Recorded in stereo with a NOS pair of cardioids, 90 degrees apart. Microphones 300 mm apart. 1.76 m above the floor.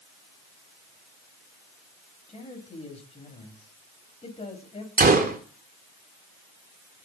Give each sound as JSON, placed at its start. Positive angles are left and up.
{"t": 2.3, "sound": "a man speaking", "azimuth_deg": 20, "distance_m": 8.5}
{"t": 5.0, "sound": "a gunshot", "azimuth_deg": -30, "distance_m": 3.0}